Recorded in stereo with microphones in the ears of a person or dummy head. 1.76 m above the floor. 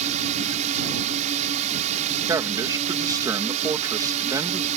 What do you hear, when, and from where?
0.0 s a drone: 35° right (ahead or behind)
2.3 s a man speaking: 15° right (ahead or behind)